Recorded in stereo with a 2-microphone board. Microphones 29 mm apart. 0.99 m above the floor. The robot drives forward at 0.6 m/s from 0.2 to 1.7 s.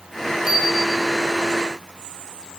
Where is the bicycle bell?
15° right (ahead or behind), 8.5 m.